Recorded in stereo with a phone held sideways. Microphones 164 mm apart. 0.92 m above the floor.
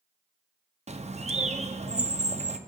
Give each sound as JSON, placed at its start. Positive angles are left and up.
{"t": 0.9, "sound": "a bird", "side_deg": -40, "distance_m": 0.5}